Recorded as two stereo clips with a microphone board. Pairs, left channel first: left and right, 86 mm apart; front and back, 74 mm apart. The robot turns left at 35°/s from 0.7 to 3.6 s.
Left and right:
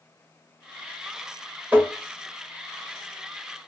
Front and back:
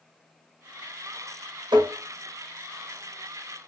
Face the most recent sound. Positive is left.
turn(degrees=130)